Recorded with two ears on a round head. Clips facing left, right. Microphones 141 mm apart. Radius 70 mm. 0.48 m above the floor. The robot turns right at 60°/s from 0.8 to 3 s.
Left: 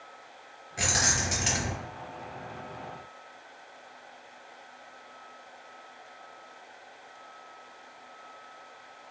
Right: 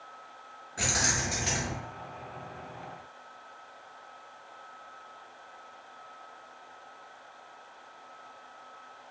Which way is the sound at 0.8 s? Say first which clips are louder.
Left 1 dB; 20° left.